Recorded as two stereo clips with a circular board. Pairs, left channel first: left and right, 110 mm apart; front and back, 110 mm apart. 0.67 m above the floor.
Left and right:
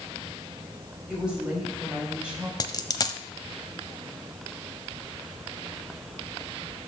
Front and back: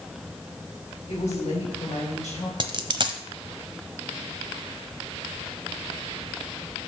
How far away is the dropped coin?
About 0.8 m.